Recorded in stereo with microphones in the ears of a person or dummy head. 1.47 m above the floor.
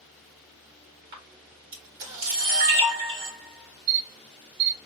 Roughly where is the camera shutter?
Right.